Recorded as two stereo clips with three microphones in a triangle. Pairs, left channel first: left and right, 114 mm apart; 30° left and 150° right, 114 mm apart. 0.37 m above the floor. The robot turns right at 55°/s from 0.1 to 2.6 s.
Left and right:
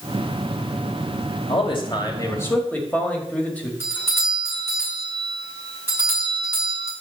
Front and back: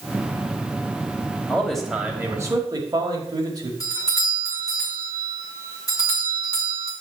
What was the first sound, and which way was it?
A man speaking, 105° left.